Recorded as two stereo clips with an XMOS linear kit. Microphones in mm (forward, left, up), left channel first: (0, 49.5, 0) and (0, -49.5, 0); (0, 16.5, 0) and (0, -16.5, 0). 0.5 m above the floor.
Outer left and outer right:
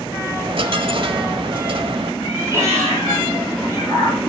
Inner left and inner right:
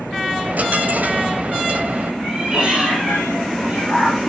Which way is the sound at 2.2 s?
30° right (ahead or behind).